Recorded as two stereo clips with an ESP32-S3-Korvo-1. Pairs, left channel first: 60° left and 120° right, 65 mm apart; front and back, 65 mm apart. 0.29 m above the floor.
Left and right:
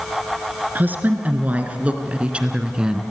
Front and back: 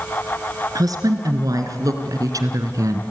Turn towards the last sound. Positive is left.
turn(degrees=160)